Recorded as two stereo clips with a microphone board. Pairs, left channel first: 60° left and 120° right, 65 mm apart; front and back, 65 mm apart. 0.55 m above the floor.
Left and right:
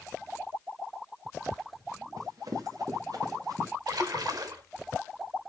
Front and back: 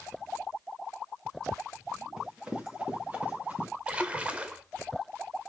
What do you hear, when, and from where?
2.2 s running footsteps: 100° right, 3.5 m; by 3.7 s 115° right, 4 m
3.9 s a splash: 110° right, 0.8 m